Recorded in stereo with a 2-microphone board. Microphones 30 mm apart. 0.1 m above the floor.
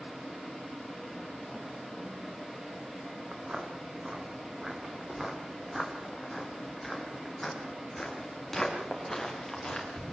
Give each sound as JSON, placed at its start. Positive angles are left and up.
{"t": 3.3, "sound": "footsteps", "side_deg": -40, "distance_m": 4.0}